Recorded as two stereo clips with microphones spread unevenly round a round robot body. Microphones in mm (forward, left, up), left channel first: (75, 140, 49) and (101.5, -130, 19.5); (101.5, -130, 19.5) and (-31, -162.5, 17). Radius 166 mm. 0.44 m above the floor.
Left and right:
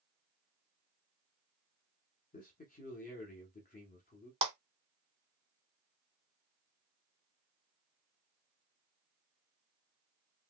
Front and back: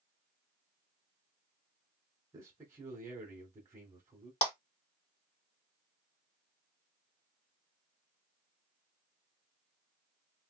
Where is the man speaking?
140° left, 1.0 m.